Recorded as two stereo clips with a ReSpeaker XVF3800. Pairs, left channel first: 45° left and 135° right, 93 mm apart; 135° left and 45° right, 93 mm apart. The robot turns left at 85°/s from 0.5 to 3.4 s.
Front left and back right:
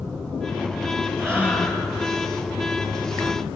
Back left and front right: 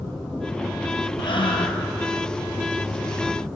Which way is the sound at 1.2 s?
175° left.